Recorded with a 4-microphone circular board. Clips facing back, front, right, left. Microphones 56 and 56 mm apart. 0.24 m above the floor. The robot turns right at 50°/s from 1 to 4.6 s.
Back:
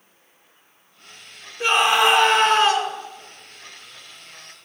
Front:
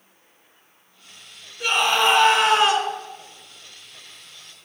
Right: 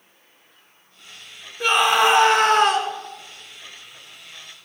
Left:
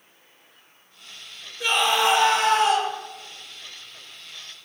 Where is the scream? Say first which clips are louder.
Back 2 dB, right 4 dB; 125° right, 3 m; by 2.9 s 65° right, 3 m.